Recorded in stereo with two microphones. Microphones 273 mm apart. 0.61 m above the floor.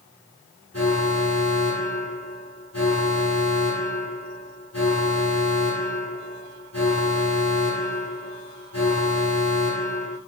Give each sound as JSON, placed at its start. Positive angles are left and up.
{"t": 0.7, "sound": "an alarm", "side_deg": 60, "distance_m": 6.0}